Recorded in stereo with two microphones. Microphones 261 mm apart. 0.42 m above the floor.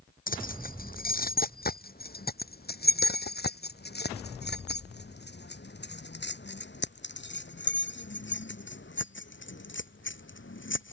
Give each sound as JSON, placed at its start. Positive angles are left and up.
{"t": 0.3, "sound": "keys jangling", "side_deg": 35}